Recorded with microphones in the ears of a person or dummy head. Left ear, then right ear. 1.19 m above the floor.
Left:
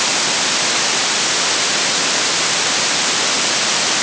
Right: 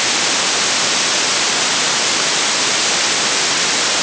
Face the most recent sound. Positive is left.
No sound to turn to.